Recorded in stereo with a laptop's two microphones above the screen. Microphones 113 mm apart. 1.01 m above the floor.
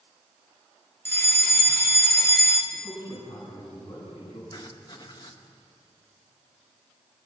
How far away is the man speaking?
About 10 m.